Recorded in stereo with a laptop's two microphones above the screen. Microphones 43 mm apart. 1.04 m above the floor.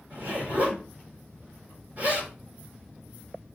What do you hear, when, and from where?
0.1 s a zipper: 40° right (ahead or behind), 3.5 m